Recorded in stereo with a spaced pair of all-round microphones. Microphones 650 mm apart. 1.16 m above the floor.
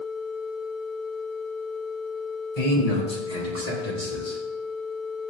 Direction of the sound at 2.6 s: 65° left (ahead or behind).